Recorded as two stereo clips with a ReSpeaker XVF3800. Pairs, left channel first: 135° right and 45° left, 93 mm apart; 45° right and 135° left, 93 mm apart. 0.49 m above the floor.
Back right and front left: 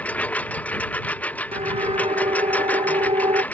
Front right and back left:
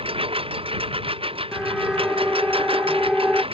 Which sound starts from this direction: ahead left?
A siren, at 1.5 s.